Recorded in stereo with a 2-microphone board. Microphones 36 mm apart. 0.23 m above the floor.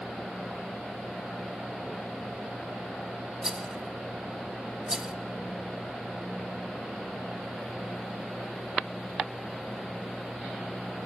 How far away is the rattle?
About 0.5 m.